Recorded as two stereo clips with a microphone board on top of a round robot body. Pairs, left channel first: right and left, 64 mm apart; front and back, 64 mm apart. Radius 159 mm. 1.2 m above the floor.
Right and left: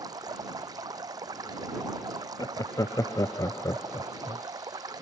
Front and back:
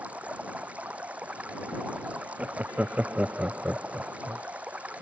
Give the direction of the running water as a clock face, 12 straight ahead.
8 o'clock.